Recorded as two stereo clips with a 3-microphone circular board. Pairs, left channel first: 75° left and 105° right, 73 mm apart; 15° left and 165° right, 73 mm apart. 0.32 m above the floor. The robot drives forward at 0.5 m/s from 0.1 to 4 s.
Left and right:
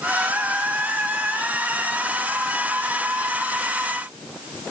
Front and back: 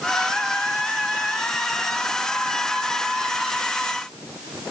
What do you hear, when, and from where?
Only background noise.